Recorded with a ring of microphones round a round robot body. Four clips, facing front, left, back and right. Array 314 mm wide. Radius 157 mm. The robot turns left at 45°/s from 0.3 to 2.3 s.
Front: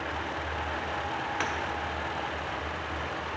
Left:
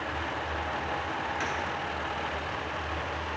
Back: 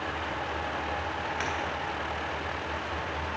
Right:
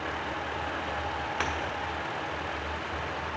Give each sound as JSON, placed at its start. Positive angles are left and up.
{"t": 1.4, "sound": "breaking glass", "azimuth_deg": -70, "distance_m": 1.3}